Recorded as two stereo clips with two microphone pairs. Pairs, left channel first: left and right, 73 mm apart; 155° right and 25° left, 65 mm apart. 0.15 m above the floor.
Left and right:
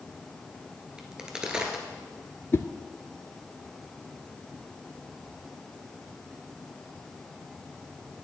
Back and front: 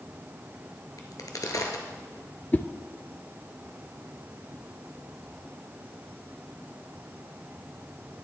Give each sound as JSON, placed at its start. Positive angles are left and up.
{"t": 1.0, "sound": "a crack", "azimuth_deg": -170, "distance_m": 1.4}
{"t": 2.5, "sound": "a whoosh", "azimuth_deg": 145, "distance_m": 0.6}